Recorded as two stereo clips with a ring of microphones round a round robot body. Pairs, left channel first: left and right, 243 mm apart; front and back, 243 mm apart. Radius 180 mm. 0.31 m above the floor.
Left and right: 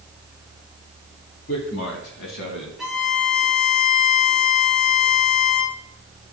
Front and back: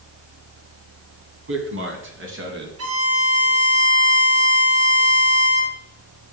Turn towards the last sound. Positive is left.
turn(degrees=180)